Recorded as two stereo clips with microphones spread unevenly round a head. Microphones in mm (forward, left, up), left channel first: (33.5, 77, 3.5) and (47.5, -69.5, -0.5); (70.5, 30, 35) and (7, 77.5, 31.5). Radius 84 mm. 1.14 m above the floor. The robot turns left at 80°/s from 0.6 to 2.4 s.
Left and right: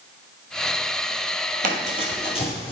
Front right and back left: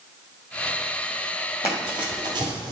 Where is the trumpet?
No trumpet in this recording.